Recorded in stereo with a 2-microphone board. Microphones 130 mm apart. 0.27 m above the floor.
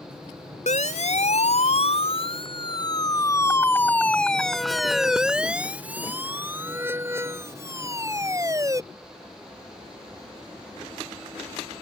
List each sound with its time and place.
0.7 s a siren: 65° left (ahead or behind); by 8.8 s 25° right (ahead or behind)